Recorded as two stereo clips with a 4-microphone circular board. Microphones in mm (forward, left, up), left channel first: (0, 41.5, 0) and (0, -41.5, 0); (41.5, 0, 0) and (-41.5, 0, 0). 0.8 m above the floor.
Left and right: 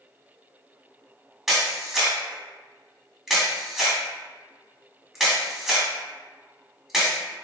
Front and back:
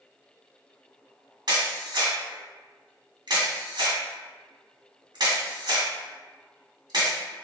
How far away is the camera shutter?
About 1.6 m.